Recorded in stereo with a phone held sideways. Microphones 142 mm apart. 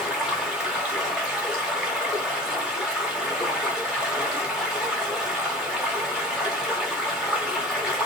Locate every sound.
0.0 s running water: 5° right (ahead or behind), 1.2 m